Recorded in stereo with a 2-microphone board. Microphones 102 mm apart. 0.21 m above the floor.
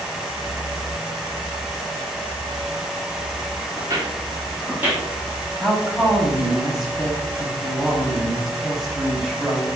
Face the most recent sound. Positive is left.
turn(degrees=0)  # may be behind; listen again after turning